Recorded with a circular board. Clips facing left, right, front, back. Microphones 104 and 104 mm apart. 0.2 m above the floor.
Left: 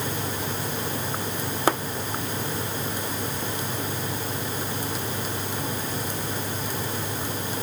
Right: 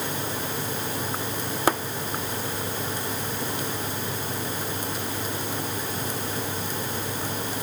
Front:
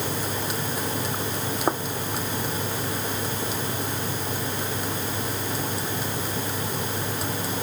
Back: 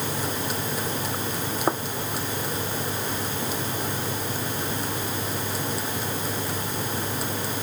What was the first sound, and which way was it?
Only background noise.